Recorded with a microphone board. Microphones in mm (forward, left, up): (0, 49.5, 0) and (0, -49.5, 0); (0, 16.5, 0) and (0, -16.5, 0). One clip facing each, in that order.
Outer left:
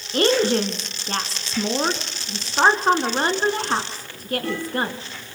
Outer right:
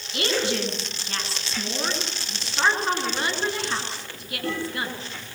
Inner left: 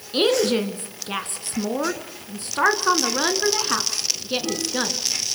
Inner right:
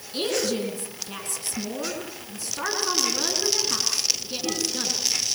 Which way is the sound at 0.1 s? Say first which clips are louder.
Outer left 7 dB, inner left 7 dB; 40° left (ahead or behind).